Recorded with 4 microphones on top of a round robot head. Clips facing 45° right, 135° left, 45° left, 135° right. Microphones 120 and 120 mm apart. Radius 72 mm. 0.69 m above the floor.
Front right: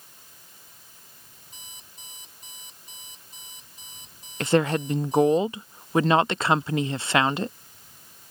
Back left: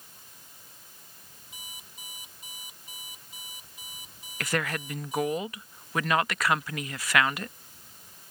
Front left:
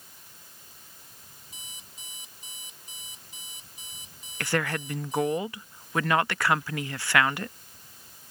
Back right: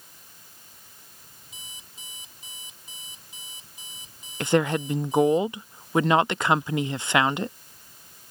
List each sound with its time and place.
1.5 s an alarm clock: 145° right
4.4 s a woman speaking: 85° right